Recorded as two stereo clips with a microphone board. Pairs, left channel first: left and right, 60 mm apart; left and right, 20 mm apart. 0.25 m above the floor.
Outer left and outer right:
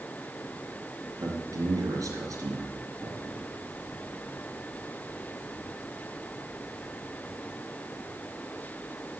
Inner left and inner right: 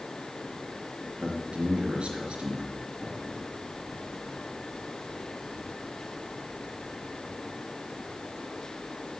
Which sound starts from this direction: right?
A man speaking, at 1.2 s.